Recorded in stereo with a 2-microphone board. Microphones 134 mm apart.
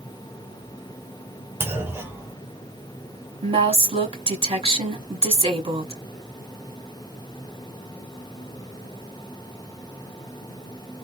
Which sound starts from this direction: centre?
A clunk, at 1.6 s.